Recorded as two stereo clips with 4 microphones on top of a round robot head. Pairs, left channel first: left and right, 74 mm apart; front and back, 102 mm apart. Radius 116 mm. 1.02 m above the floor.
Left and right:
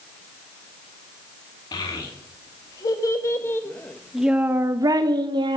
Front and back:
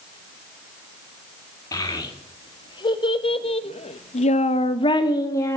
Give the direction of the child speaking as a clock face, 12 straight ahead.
10 o'clock.